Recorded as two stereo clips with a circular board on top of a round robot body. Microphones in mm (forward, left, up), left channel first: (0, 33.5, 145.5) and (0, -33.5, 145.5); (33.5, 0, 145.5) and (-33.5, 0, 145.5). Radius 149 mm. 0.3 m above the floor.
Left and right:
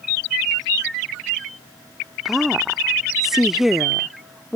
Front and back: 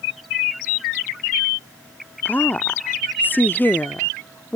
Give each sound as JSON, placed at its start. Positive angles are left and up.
{"t": 2.2, "sound": "a woman speaking", "azimuth_deg": -10}